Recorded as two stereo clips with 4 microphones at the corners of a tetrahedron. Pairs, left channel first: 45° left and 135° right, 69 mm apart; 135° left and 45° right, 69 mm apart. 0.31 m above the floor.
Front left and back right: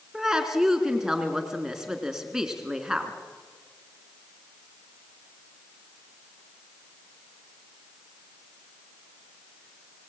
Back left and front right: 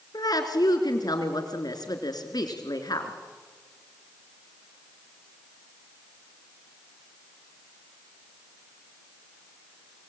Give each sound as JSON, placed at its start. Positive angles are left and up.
{"t": 0.1, "sound": "a woman speaking", "azimuth_deg": 140, "distance_m": 3.5}